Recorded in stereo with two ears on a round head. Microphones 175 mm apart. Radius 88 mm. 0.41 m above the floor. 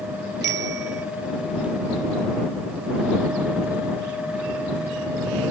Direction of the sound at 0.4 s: 55° right (ahead or behind).